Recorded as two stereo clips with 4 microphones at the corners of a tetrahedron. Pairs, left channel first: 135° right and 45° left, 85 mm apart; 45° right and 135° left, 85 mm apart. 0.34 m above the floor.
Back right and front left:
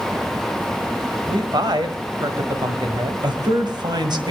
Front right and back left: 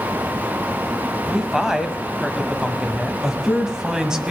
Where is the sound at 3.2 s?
55° left, 1.9 m.